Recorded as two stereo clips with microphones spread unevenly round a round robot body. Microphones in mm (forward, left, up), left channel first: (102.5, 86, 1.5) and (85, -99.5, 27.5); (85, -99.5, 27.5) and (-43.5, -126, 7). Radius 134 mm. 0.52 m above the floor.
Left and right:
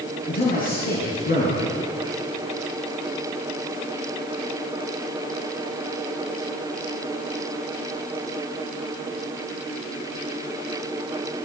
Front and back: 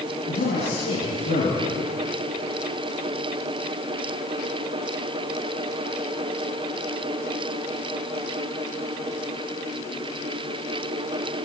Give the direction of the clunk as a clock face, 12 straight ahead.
No clunk in this recording.